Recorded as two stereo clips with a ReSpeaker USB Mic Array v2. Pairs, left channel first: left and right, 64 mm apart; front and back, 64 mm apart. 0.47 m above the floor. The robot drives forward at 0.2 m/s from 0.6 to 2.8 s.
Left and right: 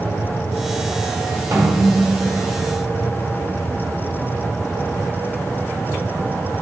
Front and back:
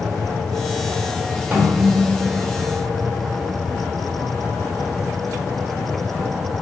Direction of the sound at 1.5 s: 115° right.